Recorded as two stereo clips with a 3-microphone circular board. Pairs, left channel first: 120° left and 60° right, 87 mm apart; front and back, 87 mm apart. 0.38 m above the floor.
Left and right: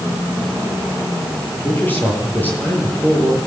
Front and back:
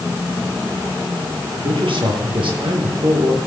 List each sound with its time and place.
1.6 s a man speaking: 170° right, 9.5 m